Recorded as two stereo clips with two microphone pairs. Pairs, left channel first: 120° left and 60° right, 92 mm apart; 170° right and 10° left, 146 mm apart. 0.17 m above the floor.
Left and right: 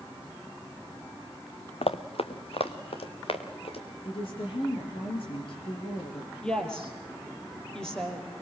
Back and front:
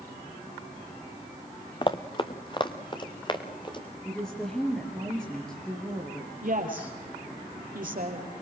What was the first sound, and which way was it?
Running footsteps, 130° left.